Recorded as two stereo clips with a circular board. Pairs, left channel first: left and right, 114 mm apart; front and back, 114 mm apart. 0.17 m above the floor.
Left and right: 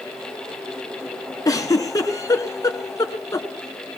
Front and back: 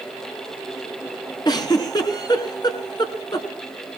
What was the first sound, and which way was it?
A giggle, 40° left.